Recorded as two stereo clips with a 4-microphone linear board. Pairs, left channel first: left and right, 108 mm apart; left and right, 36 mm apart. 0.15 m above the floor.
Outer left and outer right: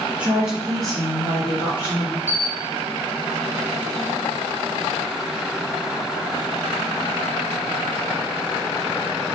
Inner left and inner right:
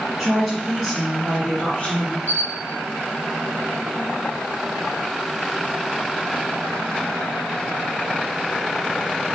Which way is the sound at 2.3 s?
65° right (ahead or behind).